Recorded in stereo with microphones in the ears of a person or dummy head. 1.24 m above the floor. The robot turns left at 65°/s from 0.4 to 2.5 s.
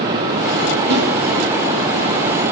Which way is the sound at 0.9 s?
60° right (ahead or behind).